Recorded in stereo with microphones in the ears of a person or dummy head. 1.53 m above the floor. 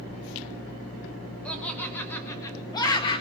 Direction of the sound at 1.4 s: 5° left (ahead or behind).